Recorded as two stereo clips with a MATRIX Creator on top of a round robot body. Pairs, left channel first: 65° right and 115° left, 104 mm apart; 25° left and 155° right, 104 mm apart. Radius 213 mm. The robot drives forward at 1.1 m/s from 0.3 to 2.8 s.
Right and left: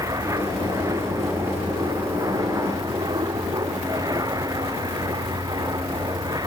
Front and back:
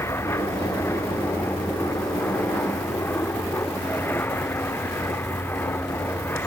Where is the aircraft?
75° left; by 6.5 s 85° left.